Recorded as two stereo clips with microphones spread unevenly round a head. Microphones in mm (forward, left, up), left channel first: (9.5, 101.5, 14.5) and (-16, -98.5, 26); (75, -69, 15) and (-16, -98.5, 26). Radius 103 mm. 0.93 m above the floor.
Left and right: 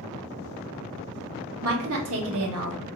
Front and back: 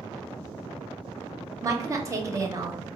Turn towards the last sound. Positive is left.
turn(degrees=-100)